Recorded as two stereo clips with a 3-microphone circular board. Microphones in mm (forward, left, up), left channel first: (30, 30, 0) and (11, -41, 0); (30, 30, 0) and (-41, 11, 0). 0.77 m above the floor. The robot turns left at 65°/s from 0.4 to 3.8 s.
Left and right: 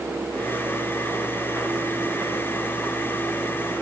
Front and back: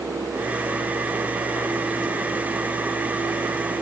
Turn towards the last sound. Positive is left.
No sound to turn to.